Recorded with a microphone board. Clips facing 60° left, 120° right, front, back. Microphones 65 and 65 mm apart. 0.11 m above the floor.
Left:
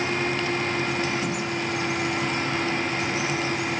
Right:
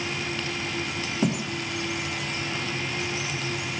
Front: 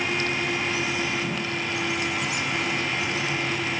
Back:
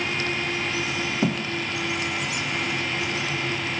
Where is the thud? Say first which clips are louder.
Right 2 dB, back 5 dB; 170° right, 5.5 m.